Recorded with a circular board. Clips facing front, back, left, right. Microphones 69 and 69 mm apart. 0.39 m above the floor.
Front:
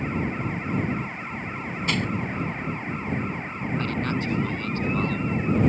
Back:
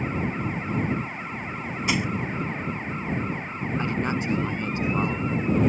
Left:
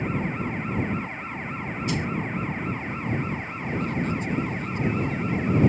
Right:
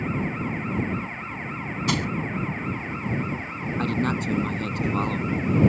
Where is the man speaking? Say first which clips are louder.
Back 1 dB, right 4 dB; 110° right.